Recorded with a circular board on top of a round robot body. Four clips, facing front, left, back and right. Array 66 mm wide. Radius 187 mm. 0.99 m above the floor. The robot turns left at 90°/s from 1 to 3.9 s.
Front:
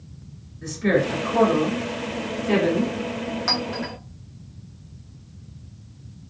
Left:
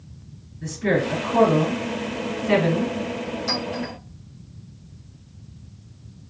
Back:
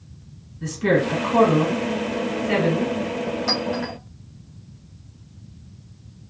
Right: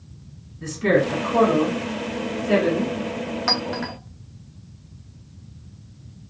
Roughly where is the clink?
Right.